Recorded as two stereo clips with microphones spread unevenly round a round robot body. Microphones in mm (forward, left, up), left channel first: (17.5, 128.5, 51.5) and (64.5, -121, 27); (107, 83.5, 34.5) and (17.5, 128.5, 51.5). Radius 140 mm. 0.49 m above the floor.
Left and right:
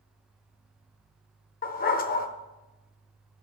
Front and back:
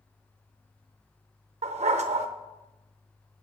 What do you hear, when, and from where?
1.6 s a dog barking: 160° left, 0.7 m